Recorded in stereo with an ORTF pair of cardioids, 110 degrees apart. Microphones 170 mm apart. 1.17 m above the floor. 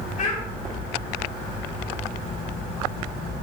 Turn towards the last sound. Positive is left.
turn(degrees=45)